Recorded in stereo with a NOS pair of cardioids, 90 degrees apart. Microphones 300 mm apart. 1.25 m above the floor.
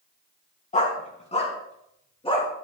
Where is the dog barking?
25° left, 3.5 m; by 2.5 s 20° left, 5.5 m.